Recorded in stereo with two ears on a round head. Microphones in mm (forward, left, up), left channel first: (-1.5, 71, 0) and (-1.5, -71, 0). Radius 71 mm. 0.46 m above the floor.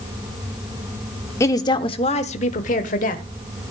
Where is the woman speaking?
15° left (ahead or behind), 0.8 m; by 3.2 s 55° left (ahead or behind), 1.5 m.